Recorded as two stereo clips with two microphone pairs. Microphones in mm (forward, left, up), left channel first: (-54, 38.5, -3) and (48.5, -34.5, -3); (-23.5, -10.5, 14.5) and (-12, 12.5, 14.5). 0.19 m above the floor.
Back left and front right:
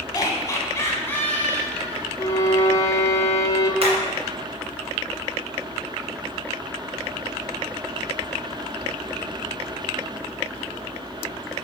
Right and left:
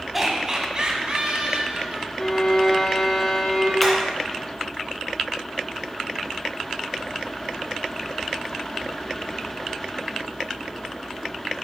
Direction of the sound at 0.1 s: 140° left.